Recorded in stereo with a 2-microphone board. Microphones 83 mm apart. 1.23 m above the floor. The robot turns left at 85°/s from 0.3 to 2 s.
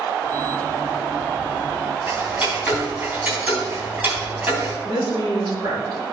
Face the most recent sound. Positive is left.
turn(degrees=-70)  # may be behind; listen again after turning